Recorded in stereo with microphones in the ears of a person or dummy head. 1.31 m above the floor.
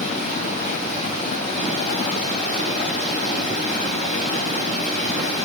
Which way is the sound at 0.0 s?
45° left (ahead or behind).